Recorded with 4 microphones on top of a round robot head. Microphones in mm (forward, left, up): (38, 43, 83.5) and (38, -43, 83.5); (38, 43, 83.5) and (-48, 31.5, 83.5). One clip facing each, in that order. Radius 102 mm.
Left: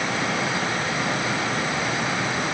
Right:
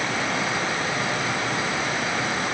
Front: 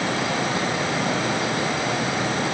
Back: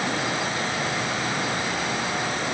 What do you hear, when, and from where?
Only background noise.